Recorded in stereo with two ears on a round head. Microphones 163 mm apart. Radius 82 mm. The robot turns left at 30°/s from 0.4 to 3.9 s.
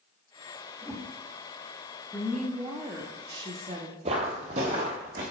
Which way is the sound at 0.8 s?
10° right (ahead or behind).